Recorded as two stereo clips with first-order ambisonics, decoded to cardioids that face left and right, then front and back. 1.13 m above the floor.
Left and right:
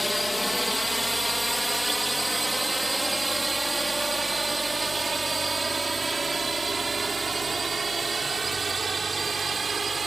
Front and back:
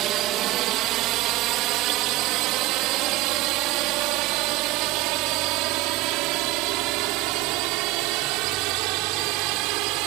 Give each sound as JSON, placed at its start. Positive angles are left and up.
{"t": 0.0, "sound": "a drone", "azimuth_deg": 175}